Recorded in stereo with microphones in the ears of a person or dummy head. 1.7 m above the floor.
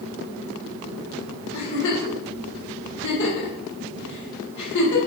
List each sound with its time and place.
1.5 s a giggle: 80° left, 1.5 m